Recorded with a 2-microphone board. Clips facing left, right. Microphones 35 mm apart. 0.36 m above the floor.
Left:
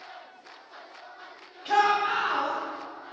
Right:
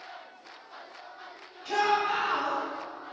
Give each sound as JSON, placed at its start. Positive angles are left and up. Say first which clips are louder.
{"t": 1.6, "sound": "a shout", "louder": "left 3 dB", "side_deg": 35, "distance_m": 1.8}